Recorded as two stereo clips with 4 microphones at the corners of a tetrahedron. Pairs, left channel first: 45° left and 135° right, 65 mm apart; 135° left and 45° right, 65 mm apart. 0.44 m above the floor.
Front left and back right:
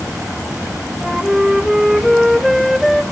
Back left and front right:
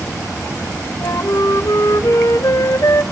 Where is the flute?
135° left, 0.8 m.